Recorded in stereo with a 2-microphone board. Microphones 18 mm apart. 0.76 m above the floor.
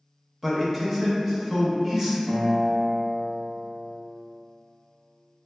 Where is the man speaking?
20° right (ahead or behind), 0.6 m.